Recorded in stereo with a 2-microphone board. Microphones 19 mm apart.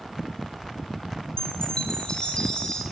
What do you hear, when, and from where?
1.4 s a chime: 50° left (ahead or behind), 2.5 m